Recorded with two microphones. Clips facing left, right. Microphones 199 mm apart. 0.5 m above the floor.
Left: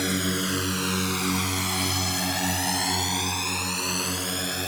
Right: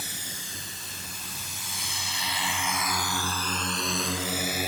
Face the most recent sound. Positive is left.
turn(degrees=-10)  # may be behind; listen again after turning